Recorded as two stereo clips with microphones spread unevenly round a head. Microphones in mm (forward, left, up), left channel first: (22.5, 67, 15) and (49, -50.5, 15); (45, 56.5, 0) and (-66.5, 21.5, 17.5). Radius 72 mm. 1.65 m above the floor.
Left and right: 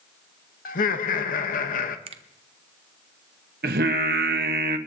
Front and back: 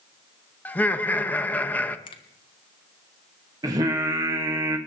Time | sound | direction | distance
0.7 | laughter | 95° left | 1.0 m
2.1 | a finger snap | 45° right | 0.9 m
3.6 | singing | 95° right | 1.2 m